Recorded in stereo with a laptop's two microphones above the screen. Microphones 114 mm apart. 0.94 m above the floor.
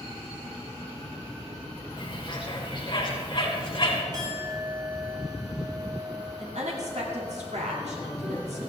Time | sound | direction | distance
2.0 | a bird | 45° left (ahead or behind) | 3 m
4.1 | a clink | 35° right (ahead or behind) | 5.5 m
6.4 | a woman speaking | 75° right (ahead or behind) | 2 m